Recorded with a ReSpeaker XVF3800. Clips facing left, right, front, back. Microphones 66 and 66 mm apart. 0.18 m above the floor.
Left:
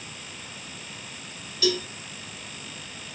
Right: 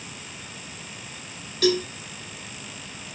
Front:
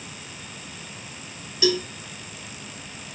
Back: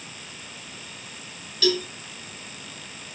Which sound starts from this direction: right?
A cowbell, at 1.6 s.